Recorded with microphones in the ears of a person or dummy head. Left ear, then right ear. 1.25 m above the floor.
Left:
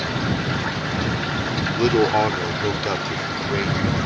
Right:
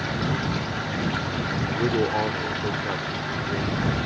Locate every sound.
1.8 s a man speaking: 30° left (ahead or behind); by 3.8 s 40° left (ahead or behind)